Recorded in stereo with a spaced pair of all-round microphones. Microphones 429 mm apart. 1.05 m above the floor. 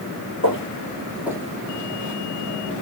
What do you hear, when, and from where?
0.4 s footsteps: 30° left (ahead or behind), 1.4 m; by 2.2 s 45° right (ahead or behind), 1.3 m